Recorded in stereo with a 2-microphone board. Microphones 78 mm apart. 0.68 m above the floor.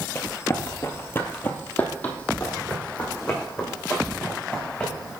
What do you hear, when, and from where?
0.1 s running footsteps: 35° left (ahead or behind), 0.8 m; by 5.1 s 10° left (ahead or behind), 3.5 m